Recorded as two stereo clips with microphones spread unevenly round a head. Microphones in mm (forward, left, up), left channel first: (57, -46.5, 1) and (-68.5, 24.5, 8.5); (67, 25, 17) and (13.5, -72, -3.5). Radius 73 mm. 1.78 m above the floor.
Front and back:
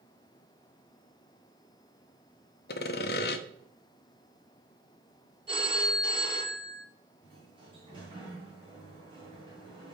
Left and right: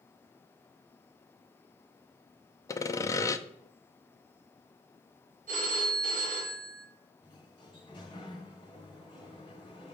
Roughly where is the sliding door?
Left.